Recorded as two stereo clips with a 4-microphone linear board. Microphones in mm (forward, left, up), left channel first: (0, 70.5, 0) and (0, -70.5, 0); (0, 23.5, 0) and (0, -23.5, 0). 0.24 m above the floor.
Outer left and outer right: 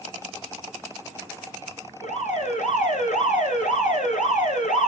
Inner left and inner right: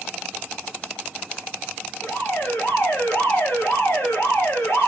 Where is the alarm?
65° left (ahead or behind), 7 m.